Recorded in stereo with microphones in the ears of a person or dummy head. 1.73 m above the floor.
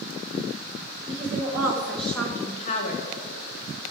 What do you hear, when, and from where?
1.1 s a woman speaking: 35° right (ahead or behind), 1.7 m; by 3.1 s 50° left (ahead or behind), 1.5 m